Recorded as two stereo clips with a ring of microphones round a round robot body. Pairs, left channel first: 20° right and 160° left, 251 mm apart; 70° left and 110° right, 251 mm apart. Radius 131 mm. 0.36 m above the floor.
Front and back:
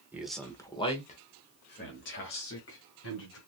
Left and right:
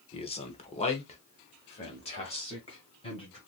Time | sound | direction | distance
0.1 | a man speaking | 85° left | 1.0 m